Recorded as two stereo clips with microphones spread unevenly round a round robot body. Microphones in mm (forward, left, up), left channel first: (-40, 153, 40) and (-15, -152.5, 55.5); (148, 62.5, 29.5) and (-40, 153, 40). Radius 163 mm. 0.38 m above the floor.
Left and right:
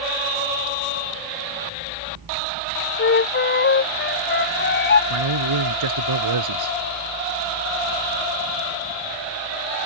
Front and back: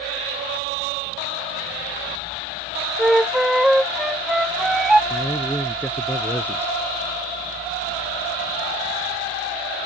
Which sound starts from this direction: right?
A man speaking, at 5.1 s.